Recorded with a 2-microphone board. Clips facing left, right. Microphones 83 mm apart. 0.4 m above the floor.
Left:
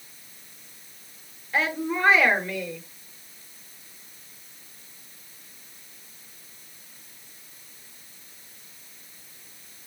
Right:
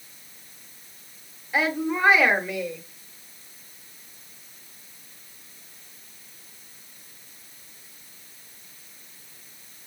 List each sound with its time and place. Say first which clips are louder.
1.5 s a woman speaking: right 2 dB; 10° right (ahead or behind), 1.2 m